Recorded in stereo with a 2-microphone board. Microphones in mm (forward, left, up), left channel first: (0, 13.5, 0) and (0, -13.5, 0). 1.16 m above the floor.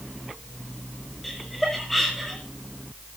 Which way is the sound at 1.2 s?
5° left (ahead or behind).